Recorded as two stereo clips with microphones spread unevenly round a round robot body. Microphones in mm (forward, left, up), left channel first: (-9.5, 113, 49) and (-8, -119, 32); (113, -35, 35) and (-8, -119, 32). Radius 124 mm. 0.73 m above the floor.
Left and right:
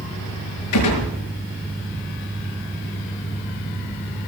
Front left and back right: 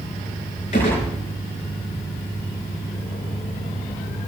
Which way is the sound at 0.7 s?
100° left.